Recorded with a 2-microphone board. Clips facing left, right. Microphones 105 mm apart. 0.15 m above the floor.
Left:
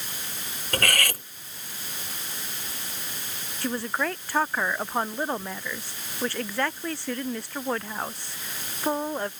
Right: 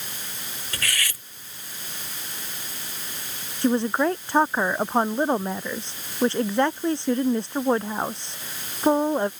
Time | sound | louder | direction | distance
0.7 | cutlery clinking | left 6 dB | 55° left (ahead or behind) | ?
3.6 | a woman speaking | right 7 dB | 25° right (ahead or behind) | ?